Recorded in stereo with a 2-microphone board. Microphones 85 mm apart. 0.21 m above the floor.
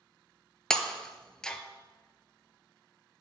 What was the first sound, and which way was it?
Breaking glass, 10° left (ahead or behind).